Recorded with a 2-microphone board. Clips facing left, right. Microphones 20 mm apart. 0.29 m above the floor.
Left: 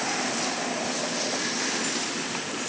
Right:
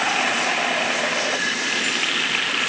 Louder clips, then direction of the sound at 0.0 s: Right 7 dB; 75° right (ahead or behind).